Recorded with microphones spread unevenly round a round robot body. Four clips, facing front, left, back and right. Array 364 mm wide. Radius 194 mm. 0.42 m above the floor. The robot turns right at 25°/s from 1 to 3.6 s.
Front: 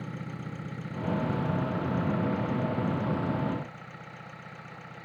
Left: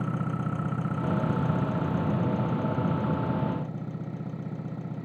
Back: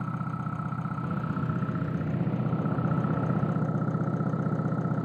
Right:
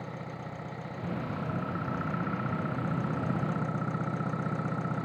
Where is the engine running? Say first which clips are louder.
Left 9 dB, back 5 dB; 120° left; by 5.1 s 175° right.